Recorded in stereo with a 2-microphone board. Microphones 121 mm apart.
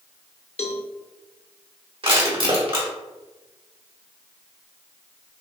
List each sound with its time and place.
0.6 s a cowbell: 65° left (ahead or behind), 0.7 m
2.0 s crushing: 45° right (ahead or behind), 1.4 m